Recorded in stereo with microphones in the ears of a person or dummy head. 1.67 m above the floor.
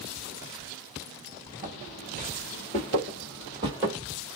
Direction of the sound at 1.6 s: 25° right (ahead or behind).